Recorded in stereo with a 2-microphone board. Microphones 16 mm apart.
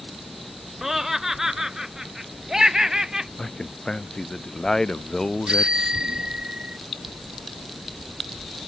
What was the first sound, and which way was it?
Laughter, 20° right (ahead or behind).